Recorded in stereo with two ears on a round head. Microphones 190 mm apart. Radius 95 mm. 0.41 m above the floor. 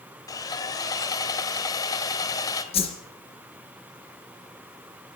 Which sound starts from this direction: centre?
Sawing, at 0.3 s.